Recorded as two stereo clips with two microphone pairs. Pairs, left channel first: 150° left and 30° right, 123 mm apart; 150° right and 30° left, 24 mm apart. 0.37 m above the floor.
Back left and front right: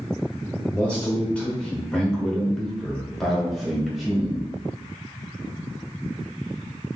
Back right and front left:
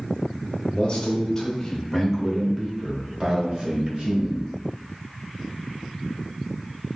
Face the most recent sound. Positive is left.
turn(degrees=55)